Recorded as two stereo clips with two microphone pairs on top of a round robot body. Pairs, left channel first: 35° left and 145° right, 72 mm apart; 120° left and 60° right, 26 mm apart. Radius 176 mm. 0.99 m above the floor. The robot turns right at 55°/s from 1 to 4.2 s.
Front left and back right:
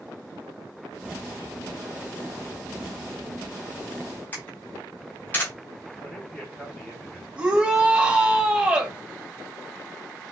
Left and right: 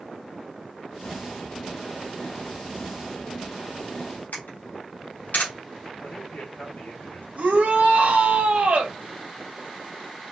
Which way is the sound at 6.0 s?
115° left.